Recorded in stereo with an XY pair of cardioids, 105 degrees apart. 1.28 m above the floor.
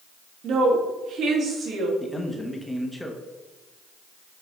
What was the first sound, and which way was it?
A woman speaking, 65° right.